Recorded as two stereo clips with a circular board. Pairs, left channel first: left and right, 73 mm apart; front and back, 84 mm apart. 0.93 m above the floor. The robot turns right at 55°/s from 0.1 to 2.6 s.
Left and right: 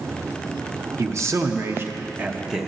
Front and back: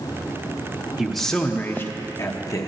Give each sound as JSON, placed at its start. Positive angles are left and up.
{"t": 1.0, "sound": "a man speaking", "azimuth_deg": -95, "distance_m": 0.7}